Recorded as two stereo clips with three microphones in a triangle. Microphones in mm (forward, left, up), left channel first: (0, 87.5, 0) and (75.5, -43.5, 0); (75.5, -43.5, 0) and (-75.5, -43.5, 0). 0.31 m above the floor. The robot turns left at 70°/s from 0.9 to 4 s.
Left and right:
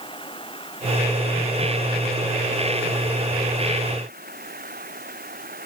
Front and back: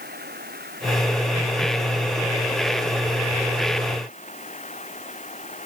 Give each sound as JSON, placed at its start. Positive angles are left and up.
{"t": 0.0, "sound": "running water", "azimuth_deg": 175}